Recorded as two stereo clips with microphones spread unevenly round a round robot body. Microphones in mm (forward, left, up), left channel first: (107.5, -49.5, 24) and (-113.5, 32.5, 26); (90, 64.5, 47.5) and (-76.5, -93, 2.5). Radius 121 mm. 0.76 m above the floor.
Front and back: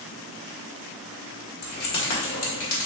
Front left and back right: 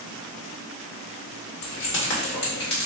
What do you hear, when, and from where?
1.6 s keys jangling: 10° left, 1.5 m; by 2.9 s 5° right, 2.5 m